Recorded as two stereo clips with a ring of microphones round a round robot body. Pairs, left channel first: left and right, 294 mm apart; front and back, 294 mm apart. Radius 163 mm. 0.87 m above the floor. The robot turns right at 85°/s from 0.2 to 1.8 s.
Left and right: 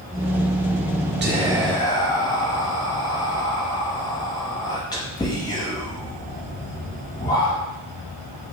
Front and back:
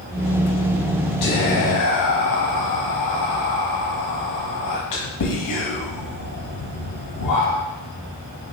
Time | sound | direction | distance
1.2 | whispering | 35° right | 0.9 m